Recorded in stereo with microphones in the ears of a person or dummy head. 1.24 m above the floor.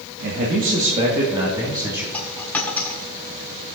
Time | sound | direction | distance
0.2 | a man speaking | 50° right (ahead or behind) | 1.7 m
2.1 | a dropped coin | 10° left (ahead or behind) | 1.6 m